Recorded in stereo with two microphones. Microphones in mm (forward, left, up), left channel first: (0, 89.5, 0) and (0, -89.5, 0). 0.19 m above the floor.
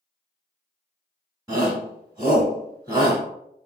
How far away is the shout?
About 1.1 m.